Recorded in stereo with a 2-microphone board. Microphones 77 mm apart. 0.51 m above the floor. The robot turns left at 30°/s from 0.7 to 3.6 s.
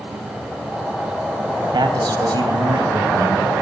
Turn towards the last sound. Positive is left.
turn(degrees=-135)